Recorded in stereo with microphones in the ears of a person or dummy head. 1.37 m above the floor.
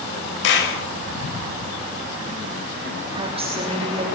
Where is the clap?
65° left (ahead or behind), 6 m.